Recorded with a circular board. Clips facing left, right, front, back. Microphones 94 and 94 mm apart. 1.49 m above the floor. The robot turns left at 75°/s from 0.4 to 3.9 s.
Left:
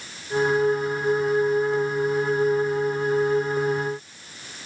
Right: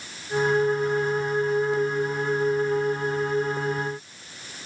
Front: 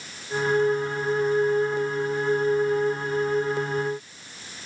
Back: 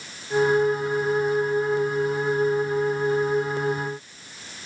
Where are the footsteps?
I don't hear footsteps.